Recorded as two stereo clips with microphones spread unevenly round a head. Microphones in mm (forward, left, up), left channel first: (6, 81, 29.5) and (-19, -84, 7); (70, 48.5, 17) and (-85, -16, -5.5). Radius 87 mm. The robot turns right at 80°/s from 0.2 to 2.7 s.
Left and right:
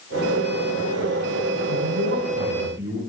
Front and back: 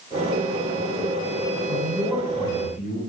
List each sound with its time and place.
1.7 s a man speaking: 110° right, 9 m; by 3.0 s 25° right, 9 m